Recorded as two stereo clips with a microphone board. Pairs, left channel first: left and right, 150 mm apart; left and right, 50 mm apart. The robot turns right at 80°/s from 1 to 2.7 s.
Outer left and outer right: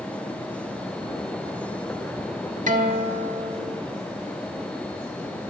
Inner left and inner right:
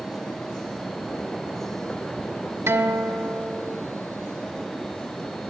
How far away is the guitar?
About 1.5 m.